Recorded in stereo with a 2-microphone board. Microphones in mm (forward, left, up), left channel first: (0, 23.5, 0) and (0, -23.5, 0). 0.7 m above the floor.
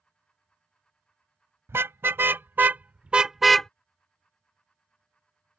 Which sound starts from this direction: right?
A car horn, at 1.7 s.